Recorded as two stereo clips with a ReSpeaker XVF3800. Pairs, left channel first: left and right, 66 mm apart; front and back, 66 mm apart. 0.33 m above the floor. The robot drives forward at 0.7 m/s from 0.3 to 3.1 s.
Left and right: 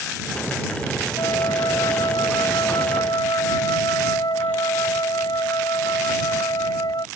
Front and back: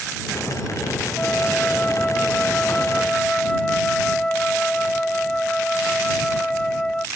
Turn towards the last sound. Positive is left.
turn(degrees=80)